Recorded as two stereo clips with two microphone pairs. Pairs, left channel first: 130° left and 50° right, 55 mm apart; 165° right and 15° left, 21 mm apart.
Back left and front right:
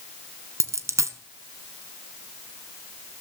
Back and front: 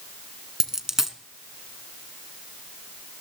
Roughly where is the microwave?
No microwave in this recording.